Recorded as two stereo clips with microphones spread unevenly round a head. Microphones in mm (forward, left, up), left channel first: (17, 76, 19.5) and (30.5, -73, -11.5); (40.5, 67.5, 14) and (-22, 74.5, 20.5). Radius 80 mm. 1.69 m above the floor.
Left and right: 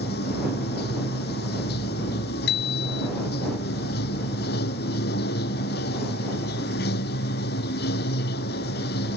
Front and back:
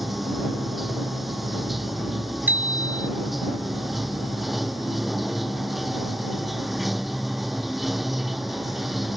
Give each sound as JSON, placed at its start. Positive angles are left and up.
{"t": 0.0, "sound": "running water", "azimuth_deg": 85}
{"t": 2.5, "sound": "a bicycle bell", "azimuth_deg": 115}